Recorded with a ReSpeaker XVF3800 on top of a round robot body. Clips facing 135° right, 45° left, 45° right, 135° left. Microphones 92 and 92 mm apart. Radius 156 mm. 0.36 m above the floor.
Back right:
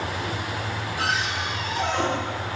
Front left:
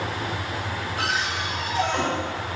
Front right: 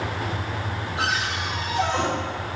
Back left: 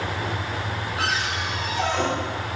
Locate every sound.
1.0 s a cupboard door: 20° left, 2.5 m